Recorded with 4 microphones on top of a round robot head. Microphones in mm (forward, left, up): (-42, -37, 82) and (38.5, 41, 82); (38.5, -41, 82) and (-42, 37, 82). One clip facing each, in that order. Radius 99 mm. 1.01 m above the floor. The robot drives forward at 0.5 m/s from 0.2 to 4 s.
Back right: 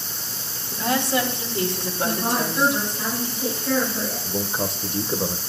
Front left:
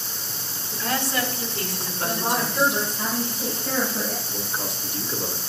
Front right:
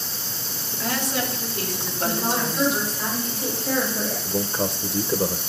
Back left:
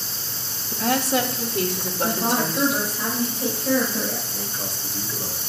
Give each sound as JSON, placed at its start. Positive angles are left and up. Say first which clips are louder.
{"t": 0.7, "sound": "a woman speaking", "louder": "back right 4 dB, back left 5 dB", "azimuth_deg": 155, "distance_m": 2.0}
{"t": 2.0, "sound": "a woman speaking", "louder": "back right 1 dB, back left 1 dB", "azimuth_deg": 120, "distance_m": 5.0}
{"t": 4.2, "sound": "a man speaking", "louder": "back right 5 dB, front right 8 dB", "azimuth_deg": -80, "distance_m": 0.6}